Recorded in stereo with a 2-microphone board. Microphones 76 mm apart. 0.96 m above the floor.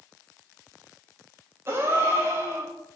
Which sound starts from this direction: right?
A gasp, at 1.7 s.